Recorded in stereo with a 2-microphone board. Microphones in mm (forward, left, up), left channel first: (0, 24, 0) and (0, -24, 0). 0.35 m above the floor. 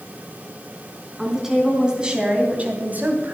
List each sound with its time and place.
1.2 s a woman speaking: 5° right (ahead or behind), 3.5 m; by 3.4 s 45° right (ahead or behind), 2.5 m